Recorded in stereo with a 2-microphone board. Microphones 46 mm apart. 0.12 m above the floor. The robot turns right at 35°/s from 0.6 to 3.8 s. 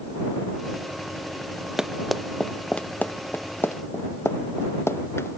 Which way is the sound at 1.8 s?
10° right (ahead or behind).